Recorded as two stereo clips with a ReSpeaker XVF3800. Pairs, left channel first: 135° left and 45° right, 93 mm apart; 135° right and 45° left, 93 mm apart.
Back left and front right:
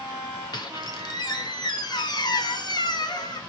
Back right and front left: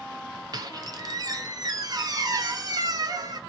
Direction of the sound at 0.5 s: 90° left.